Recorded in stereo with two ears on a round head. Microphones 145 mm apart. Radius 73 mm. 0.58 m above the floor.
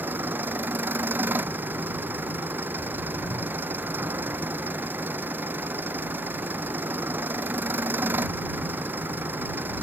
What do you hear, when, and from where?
0.0 s an engine running: 10° right (ahead or behind)